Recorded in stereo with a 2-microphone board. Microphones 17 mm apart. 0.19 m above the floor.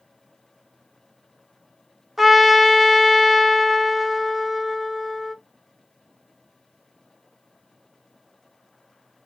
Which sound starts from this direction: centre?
A trumpet, at 2.2 s.